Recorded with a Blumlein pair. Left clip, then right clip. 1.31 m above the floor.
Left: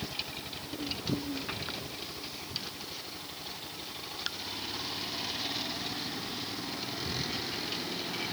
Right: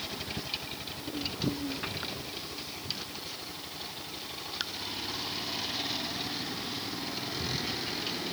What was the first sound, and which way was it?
Only background noise.